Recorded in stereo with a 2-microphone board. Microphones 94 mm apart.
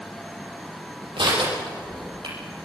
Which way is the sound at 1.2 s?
70° right (ahead or behind).